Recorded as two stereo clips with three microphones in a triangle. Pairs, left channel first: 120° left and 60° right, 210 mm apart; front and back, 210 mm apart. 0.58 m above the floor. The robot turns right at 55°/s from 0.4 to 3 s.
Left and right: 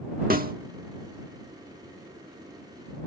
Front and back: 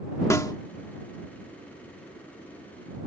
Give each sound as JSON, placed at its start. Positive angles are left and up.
{"t": 0.3, "sound": "a snare drum", "azimuth_deg": -70}